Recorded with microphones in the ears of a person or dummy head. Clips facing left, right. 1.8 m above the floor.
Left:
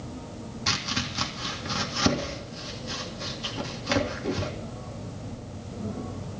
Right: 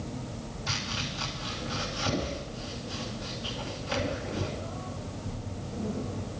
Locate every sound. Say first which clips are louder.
0.7 s chopping: left 5 dB; 65° left (ahead or behind), 2 m